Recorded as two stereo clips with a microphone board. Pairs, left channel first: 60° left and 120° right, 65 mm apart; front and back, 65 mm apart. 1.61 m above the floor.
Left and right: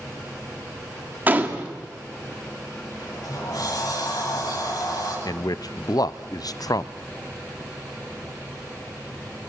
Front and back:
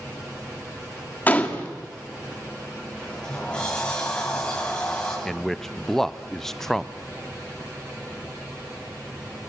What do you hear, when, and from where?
1.3 s a gunshot: 65° right, 1.7 m
3.0 s a sliding door: 75° left, 9.5 m
5.2 s a man speaking: 85° left, 0.7 m